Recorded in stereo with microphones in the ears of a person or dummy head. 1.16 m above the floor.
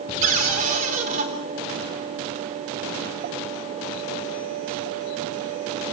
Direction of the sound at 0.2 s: 40° right (ahead or behind).